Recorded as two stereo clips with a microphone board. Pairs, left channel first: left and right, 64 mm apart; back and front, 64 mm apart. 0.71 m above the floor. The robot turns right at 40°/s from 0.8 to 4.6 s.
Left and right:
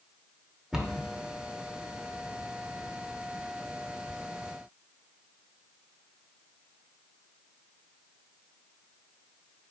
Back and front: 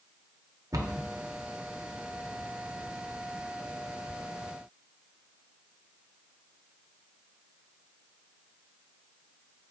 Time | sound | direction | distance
0.7 | a cupboard door | 10° right | 0.7 m